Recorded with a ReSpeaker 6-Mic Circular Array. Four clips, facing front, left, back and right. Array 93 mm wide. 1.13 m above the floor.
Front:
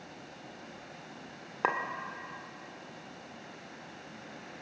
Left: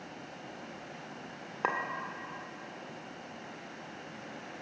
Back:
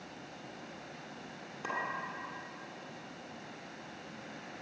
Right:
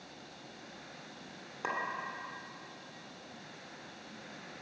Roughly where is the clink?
Ahead left.